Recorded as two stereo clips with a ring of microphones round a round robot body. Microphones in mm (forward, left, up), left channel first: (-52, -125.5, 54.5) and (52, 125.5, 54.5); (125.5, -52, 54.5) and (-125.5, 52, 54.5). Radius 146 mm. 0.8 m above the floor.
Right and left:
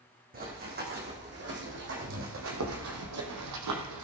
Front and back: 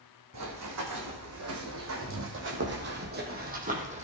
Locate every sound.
0.3 s running footsteps: 125° left, 3 m; by 4.0 s 90° left, 2.5 m